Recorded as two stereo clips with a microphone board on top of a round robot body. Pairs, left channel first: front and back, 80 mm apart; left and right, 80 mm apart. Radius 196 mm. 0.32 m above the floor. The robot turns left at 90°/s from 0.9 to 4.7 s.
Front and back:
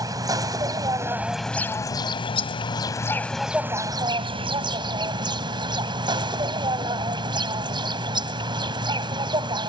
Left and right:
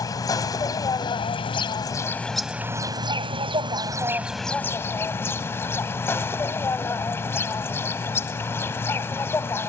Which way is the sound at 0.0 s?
135° left.